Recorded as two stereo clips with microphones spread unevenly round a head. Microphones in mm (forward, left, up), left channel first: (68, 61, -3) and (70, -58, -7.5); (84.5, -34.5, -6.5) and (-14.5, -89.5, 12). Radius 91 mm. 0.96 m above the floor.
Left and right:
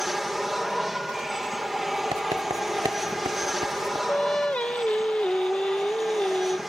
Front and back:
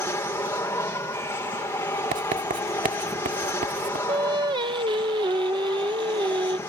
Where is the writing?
155° right.